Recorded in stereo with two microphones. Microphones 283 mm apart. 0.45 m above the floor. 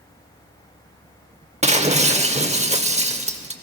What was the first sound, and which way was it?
Breaking glass, 25° right (ahead or behind).